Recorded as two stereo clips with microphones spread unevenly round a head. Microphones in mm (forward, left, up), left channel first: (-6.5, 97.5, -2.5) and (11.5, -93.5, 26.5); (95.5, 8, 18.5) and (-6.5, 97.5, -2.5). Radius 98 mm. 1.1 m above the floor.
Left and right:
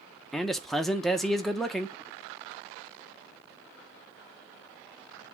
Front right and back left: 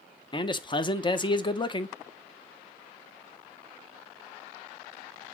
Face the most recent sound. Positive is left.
turn(degrees=15)